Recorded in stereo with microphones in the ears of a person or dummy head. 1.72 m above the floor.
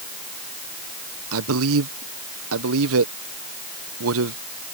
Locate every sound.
1.3 s a man speaking: 80° right